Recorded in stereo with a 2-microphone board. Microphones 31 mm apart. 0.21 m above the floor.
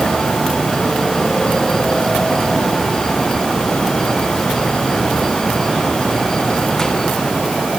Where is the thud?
No thud in this recording.